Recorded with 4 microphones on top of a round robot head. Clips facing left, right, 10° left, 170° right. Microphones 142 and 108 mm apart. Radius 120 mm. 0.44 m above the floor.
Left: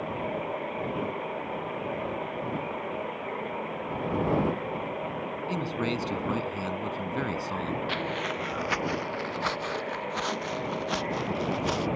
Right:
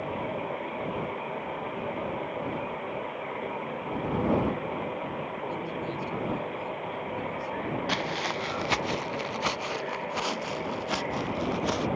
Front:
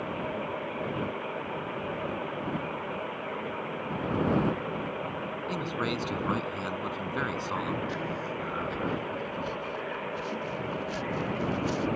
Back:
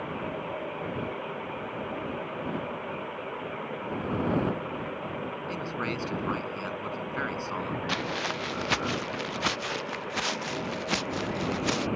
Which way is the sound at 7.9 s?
145° right.